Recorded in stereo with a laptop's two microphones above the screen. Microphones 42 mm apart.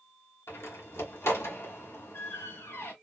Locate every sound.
0.5 s a door slam: 85° left, 1.1 m